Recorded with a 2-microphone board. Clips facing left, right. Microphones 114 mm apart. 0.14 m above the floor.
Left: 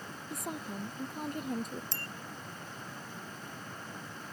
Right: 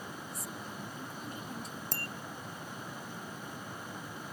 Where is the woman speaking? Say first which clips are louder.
Left 4 dB; 55° left (ahead or behind).